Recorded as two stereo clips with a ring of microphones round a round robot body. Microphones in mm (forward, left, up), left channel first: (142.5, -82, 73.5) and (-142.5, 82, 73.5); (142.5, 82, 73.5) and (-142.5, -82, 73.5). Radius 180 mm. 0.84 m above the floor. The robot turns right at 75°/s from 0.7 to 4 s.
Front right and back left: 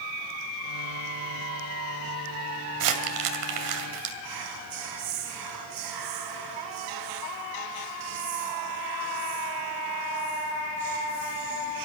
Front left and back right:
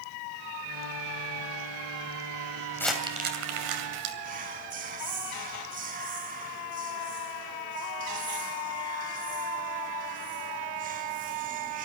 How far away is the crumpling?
About 2.5 m.